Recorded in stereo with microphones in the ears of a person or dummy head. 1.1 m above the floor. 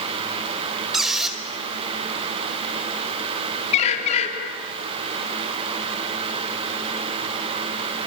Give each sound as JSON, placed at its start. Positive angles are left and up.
{"t": 0.9, "sound": "a squeak", "side_deg": 0, "distance_m": 2.0}
{"t": 3.7, "sound": "a bird", "side_deg": 35, "distance_m": 3.0}